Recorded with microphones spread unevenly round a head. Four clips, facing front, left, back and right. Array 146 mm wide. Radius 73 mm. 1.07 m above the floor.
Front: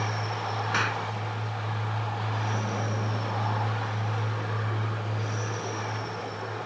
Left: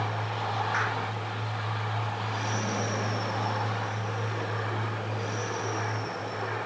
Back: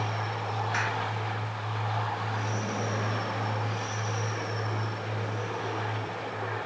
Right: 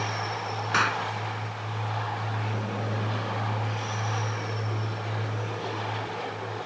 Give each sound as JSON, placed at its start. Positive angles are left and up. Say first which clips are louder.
{"t": 0.7, "sound": "a clap", "louder": "right 4 dB, front 2 dB", "azimuth_deg": -70}